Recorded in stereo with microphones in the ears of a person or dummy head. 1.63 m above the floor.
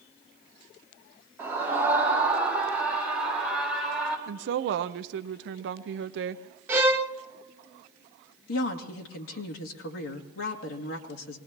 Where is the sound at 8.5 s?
70° left (ahead or behind), 2 m.